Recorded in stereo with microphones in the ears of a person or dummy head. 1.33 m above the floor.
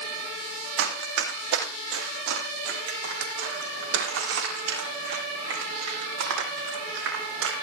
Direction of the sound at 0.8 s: 75° right (ahead or behind).